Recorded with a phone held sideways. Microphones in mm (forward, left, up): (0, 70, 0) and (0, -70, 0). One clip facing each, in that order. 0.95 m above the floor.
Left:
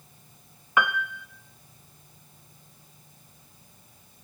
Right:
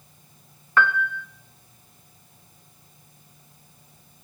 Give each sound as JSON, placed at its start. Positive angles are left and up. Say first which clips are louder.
{"t": 0.8, "sound": "a piano", "louder": "right 3 dB", "side_deg": 15, "distance_m": 0.7}